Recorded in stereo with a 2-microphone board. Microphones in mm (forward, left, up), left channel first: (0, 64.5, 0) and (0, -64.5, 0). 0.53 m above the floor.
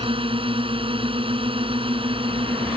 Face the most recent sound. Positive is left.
turn(degrees=-45)  # may be behind; listen again after turning